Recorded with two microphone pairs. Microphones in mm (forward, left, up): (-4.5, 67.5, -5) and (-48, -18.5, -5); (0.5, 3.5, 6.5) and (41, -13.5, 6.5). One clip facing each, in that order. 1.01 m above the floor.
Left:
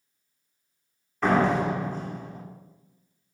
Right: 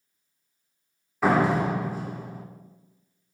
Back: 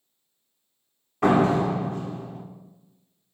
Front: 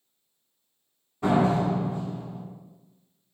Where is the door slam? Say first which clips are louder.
Even, back 3 dB; 160° left, 2 m.